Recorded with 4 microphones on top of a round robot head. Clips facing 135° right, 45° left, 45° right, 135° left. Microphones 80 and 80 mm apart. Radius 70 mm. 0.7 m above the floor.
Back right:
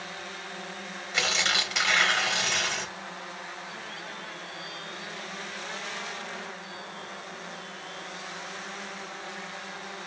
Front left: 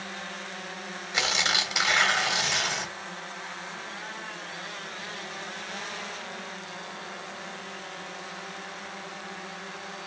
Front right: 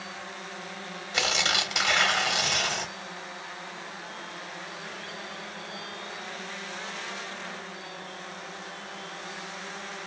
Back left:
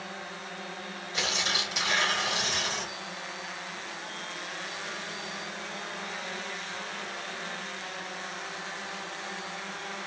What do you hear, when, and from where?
1.1 s tearing paper: 30° right, 1.5 m